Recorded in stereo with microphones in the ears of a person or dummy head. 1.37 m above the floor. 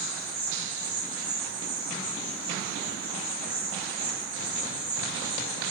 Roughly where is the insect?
Centre.